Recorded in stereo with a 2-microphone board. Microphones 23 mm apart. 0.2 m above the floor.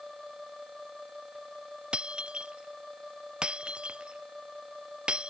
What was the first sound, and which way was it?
Breaking glass, 40° right (ahead or behind).